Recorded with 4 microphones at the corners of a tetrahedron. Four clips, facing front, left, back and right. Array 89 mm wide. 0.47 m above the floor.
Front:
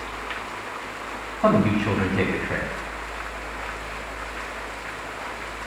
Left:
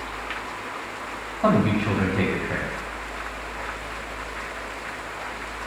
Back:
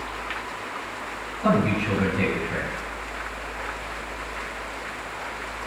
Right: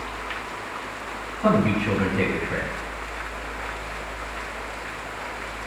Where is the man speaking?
30° left, 4 m.